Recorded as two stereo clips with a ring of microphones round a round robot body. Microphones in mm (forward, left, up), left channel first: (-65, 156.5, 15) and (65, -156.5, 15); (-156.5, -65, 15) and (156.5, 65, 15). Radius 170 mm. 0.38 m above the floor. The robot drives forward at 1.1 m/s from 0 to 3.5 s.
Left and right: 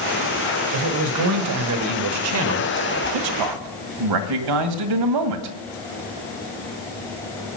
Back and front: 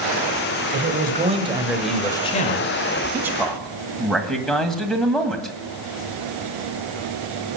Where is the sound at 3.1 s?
60° right, 2 m; by 5.6 s 70° right, 2.0 m.